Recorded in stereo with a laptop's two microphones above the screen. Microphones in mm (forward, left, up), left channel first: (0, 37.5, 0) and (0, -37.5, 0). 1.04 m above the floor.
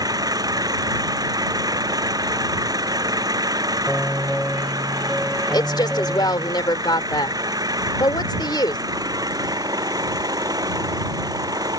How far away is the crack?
I don't hear a crack.